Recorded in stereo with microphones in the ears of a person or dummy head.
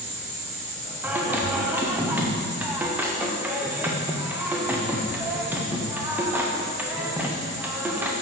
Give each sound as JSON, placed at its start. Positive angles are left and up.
{"t": 0.0, "sound": "an insect", "side_deg": -40, "distance_m": 1.0}
{"t": 1.0, "sound": "singing", "side_deg": -10, "distance_m": 0.6}